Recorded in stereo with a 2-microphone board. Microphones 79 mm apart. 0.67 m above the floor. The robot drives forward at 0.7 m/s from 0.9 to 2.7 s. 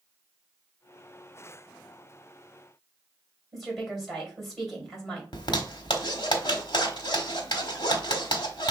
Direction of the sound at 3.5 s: Centre (ahead or behind).